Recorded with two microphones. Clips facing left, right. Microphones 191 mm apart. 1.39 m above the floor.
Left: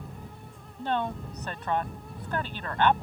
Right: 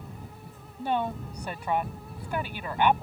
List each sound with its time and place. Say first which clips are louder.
0.8 s a woman speaking: right 1 dB; 10° right (ahead or behind)